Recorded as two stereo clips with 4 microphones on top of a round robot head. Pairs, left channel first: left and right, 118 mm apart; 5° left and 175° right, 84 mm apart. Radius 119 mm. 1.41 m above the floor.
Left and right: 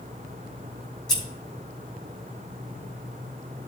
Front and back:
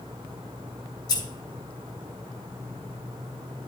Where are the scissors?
5° left, 1.1 m.